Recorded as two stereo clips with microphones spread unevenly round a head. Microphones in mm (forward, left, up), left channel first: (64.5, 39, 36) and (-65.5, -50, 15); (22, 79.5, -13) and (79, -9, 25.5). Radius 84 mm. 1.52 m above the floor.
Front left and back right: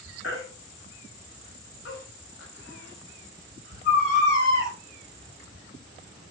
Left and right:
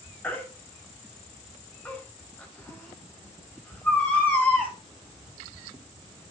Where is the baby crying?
40° left, 4.5 m.